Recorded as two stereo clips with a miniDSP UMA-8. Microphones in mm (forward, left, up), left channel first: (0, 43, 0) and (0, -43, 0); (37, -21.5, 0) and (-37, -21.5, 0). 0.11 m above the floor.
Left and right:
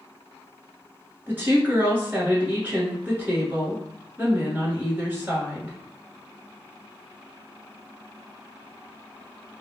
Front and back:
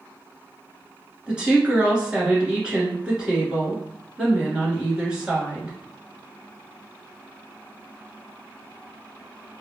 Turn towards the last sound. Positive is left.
turn(degrees=-120)